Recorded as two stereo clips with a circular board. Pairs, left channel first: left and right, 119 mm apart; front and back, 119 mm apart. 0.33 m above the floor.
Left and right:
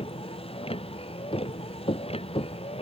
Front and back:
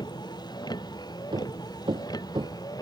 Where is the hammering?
130° left.